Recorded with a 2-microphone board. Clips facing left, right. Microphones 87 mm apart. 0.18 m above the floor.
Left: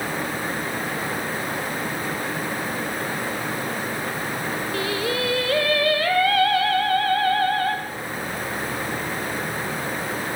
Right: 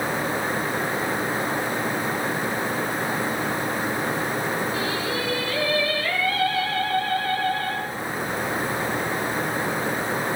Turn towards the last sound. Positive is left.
turn(degrees=60)  # may be behind; listen again after turning